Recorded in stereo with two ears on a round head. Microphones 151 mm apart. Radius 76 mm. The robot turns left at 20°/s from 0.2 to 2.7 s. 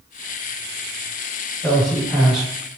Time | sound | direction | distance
1.6 | a man speaking | 5° left (ahead or behind) | 1.5 m